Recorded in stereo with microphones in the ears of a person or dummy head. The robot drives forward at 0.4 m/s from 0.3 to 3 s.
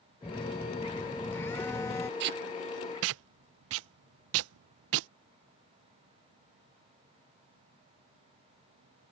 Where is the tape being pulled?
60° right (ahead or behind); by 5.1 s 80° right.